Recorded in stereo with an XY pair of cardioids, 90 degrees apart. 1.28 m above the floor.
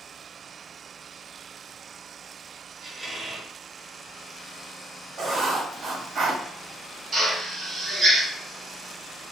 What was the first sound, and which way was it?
A squeak, 55° right.